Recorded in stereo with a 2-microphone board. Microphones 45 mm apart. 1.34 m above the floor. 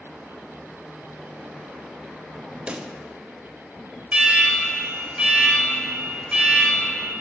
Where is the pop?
20° right (ahead or behind), 0.5 m.